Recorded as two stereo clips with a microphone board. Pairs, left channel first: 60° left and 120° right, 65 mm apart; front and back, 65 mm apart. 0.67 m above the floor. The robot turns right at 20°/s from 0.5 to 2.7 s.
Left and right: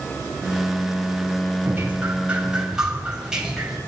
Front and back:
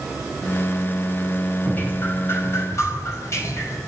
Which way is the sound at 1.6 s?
60° right.